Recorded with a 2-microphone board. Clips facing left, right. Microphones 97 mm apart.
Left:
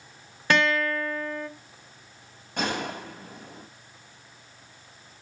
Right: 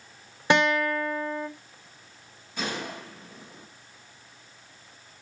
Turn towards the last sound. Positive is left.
turn(degrees=65)  # may be behind; listen again after turning